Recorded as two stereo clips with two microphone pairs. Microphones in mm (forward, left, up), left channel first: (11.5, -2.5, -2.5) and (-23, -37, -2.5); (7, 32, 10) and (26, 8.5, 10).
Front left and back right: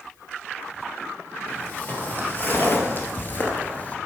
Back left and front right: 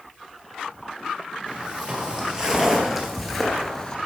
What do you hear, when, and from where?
1.5 s footsteps: 5° right, 2.5 m; by 4.0 s 80° left, 1.6 m